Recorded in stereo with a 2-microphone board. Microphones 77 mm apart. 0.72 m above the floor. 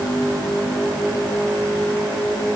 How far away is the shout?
No shout in this recording.